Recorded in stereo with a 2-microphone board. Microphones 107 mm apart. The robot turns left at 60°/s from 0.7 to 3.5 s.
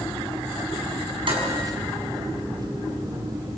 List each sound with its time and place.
1.3 s dishes clattering: 55° right (ahead or behind), 5 m; by 1.5 s 70° right (ahead or behind), 5 m